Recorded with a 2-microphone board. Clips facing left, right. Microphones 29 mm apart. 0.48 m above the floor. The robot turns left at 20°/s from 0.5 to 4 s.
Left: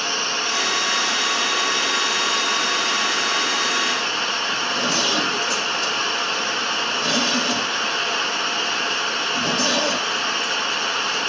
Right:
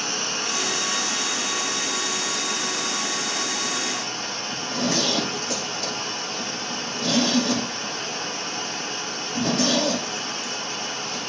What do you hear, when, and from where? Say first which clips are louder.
0.0 s running water: left 4 dB; 150° left, 0.9 m; by 11.3 s 80° left, 0.9 m
4.5 s a zipper: left 4 dB; centre (ahead or behind), 5.5 m